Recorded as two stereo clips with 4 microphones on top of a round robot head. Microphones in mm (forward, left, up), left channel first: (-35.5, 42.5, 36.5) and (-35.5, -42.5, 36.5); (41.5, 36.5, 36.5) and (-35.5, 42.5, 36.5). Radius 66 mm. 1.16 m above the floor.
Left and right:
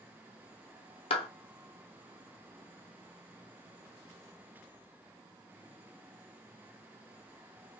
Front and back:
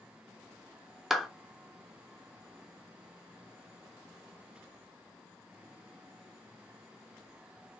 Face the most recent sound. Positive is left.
turn(degrees=85)